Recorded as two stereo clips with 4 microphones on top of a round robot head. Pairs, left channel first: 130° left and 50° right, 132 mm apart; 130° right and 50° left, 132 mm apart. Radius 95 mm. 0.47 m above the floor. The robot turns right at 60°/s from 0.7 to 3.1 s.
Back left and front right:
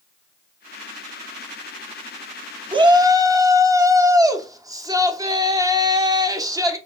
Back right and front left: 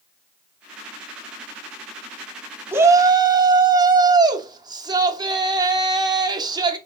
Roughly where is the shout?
Ahead.